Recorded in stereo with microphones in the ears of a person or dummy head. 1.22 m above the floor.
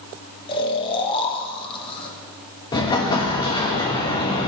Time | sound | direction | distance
0.5 | snoring | 30° left (ahead or behind) | 0.9 m
2.7 | an explosion | 25° left (ahead or behind) | 1.1 m